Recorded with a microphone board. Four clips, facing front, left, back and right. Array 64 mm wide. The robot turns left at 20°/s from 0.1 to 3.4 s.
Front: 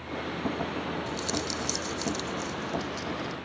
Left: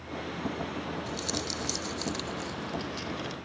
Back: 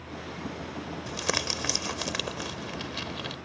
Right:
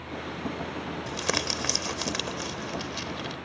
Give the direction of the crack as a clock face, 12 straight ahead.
No crack in this recording.